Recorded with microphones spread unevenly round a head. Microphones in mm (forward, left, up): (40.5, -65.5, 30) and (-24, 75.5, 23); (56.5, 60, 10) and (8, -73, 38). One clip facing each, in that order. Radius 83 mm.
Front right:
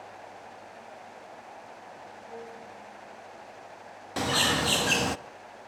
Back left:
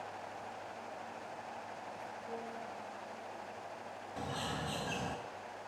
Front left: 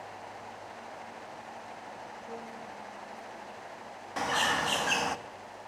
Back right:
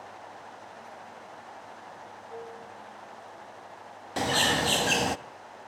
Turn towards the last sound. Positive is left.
turn(degrees=-60)